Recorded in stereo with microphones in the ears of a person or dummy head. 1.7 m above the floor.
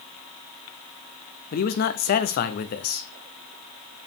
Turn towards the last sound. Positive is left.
turn(degrees=50)  # may be behind; listen again after turning